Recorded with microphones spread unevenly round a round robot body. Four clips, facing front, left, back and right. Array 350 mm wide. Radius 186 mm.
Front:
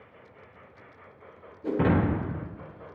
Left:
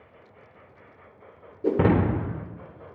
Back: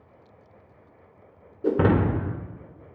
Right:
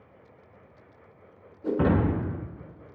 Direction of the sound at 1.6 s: 130° left.